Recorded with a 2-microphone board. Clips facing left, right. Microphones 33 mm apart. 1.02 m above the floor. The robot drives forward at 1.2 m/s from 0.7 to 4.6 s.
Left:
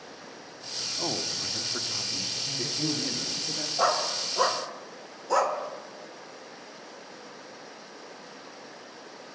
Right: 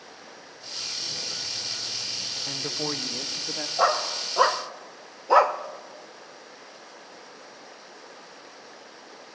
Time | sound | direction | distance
1.0 | a man speaking | 75° left (ahead or behind) | 2 m
2.5 | a woman speaking | 70° right (ahead or behind) | 0.8 m
3.8 | a dog barking | 15° right (ahead or behind) | 2.0 m